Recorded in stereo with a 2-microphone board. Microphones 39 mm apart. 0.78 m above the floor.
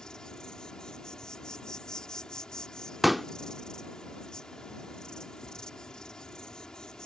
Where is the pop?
Centre (ahead or behind).